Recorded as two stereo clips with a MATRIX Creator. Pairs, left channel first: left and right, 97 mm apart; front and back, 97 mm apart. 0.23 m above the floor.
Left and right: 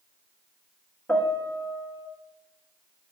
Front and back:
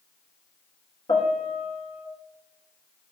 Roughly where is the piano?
Ahead.